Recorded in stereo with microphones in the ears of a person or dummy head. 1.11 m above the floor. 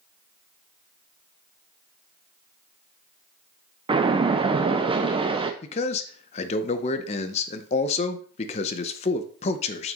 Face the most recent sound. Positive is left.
turn(degrees=35)  # may be behind; listen again after turning